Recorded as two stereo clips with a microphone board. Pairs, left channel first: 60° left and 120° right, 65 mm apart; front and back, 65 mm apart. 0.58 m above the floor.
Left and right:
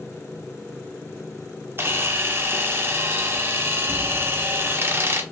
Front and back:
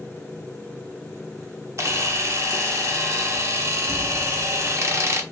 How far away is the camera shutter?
About 0.9 m.